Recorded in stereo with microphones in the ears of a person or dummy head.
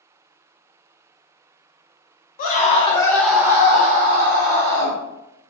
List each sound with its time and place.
2.4 s a scream: 40° left (ahead or behind), 0.8 m; by 5.0 s 65° right (ahead or behind), 1.2 m